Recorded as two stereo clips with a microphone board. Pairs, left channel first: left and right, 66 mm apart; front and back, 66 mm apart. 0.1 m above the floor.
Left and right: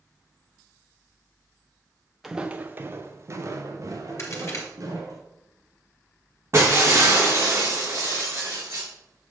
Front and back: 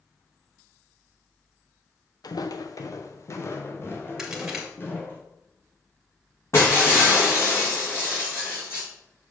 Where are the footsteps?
5° right, 0.7 m; by 5.2 s 55° right, 3.5 m.